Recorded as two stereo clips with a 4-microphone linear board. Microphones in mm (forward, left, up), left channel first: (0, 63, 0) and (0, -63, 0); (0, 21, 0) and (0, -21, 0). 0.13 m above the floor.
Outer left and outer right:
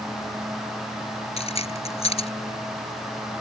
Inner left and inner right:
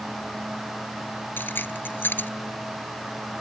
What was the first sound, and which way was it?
Keys jangling, 55° left (ahead or behind).